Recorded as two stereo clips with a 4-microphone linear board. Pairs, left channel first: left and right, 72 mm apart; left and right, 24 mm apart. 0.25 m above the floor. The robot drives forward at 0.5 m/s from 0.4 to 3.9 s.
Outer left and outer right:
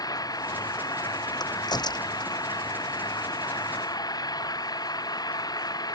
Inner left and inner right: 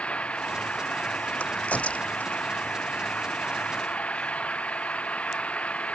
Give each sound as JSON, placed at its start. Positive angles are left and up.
{"t": 0.0, "sound": "an engine running", "side_deg": 60}
{"t": 1.4, "sound": "a crack", "side_deg": 75}